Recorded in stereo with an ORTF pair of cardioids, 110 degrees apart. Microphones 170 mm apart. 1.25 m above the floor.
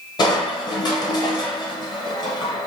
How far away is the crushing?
About 0.8 m.